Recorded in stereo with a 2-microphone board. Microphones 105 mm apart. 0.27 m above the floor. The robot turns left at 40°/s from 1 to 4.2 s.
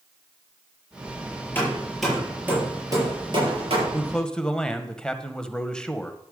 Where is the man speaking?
Centre (ahead or behind), 1.1 m; by 6.2 s 5° left (ahead or behind), 1.1 m.